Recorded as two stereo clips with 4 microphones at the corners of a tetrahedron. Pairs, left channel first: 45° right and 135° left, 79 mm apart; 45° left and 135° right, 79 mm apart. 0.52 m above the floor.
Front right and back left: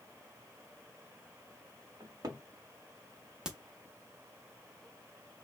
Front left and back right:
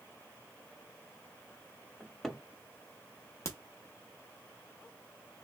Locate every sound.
2.0 s a cupboard door: 130° left, 0.6 m
3.5 s a crack: 65° left, 0.8 m